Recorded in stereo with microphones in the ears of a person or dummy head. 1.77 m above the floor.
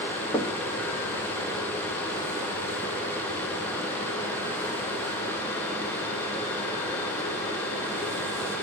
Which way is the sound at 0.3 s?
30° left (ahead or behind).